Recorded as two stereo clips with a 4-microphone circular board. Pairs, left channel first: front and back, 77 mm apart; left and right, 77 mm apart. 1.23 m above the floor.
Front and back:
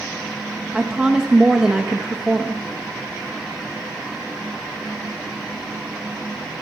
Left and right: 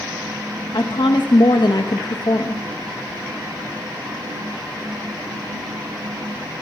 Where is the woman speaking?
100° left, 1.0 m.